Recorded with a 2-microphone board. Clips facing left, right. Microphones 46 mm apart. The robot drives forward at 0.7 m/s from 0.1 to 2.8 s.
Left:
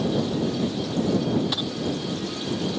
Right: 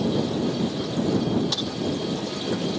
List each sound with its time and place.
1.5 s a dropped coin: 10° left (ahead or behind)